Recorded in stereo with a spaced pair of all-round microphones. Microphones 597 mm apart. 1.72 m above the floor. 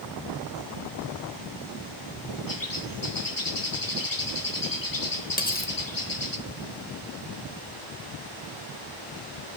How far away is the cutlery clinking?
About 1.0 m.